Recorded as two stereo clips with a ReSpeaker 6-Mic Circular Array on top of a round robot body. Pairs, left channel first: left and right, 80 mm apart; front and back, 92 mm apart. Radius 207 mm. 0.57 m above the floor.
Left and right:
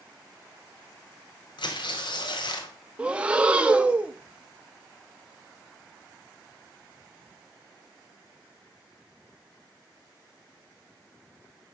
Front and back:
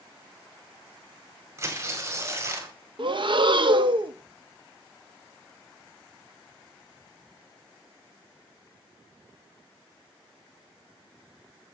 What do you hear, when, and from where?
1.6 s tearing paper: 120° left, 1.7 m
3.0 s breathing: 160° right, 1.1 m